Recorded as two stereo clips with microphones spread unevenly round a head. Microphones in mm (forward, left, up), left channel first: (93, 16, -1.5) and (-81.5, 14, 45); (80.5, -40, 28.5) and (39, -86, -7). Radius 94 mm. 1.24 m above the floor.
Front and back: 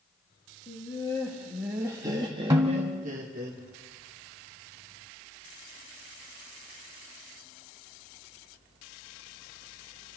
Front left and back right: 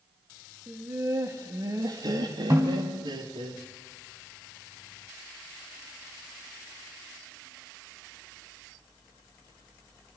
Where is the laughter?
70° right, 1.6 m; by 3.5 s 135° right, 2.5 m.